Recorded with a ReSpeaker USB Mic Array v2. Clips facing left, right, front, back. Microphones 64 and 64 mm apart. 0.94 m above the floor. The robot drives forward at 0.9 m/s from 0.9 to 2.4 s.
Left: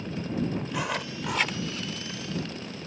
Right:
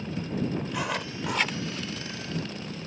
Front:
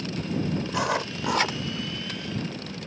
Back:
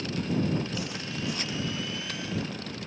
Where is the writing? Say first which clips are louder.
Even, front 8 dB; straight ahead.